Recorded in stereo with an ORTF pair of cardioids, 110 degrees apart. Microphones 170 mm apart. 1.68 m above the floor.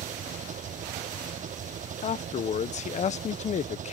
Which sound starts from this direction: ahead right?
An engine running, at 0.0 s.